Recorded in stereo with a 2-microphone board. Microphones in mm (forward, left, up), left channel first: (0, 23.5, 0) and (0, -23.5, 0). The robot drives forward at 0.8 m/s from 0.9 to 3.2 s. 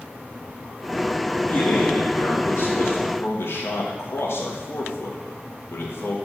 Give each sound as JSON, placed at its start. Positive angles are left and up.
{"t": 1.5, "sound": "a man speaking", "side_deg": 50, "distance_m": 2.5}